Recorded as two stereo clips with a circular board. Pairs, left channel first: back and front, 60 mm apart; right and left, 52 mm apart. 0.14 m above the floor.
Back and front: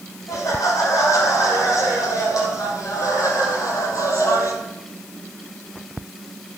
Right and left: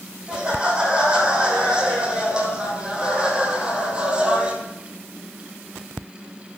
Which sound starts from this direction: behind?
Laughter, at 0.3 s.